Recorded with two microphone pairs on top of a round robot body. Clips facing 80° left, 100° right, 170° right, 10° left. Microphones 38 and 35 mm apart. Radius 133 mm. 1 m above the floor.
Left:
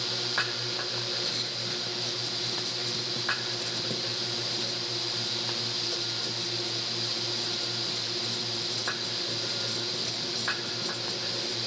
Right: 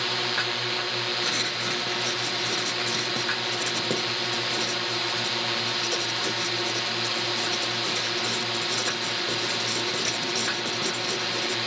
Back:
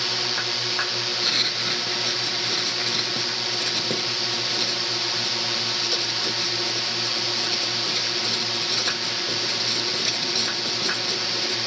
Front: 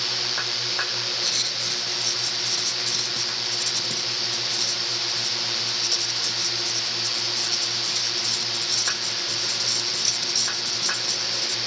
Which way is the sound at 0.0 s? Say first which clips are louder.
Right 4 dB, back 2 dB; 105° right.